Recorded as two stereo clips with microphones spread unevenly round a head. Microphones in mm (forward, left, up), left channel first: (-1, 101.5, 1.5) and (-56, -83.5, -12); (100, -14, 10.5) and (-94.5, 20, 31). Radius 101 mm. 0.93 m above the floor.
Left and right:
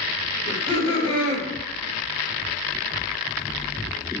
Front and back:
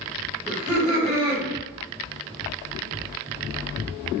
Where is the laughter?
95° left, 1.0 m.